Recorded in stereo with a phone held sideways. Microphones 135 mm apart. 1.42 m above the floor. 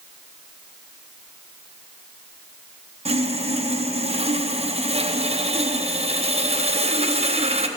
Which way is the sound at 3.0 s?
50° right (ahead or behind).